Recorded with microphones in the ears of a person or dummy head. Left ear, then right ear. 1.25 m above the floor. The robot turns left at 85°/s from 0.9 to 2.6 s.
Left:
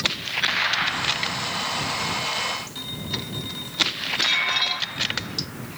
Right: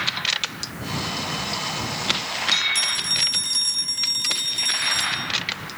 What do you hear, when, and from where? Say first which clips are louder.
2.8 s a phone ringing: right 9 dB; 65° right (ahead or behind)